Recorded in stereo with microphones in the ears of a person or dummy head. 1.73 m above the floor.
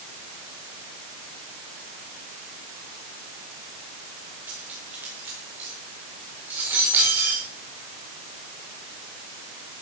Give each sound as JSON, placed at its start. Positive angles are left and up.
{"t": 4.5, "sound": "cutlery clinking", "side_deg": -5, "distance_m": 4.0}